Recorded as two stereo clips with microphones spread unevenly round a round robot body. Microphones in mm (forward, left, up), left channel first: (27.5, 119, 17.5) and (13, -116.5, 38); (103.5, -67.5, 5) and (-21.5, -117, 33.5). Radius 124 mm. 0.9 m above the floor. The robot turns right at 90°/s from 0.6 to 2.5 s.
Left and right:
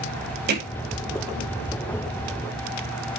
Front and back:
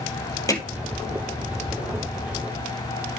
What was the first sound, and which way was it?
Hammering, 45° right.